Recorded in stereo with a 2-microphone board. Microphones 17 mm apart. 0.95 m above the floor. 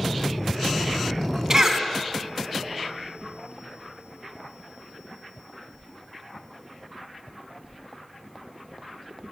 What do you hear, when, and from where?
1.5 s a cough: 35° right (ahead or behind), 1.9 m